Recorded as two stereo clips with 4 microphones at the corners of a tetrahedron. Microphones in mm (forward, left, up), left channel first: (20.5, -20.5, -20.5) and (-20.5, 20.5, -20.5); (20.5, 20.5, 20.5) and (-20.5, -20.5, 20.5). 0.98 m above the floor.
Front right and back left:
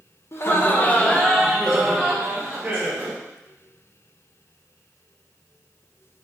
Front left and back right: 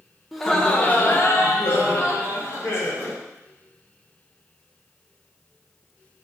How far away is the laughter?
About 0.7 m.